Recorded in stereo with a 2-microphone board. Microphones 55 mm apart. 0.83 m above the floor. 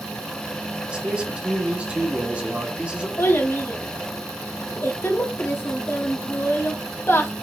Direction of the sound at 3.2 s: 40° left (ahead or behind).